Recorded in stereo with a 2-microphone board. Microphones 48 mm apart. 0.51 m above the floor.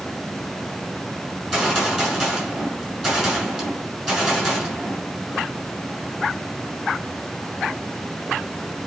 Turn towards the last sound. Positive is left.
turn(degrees=5)  # may be behind; listen again after turning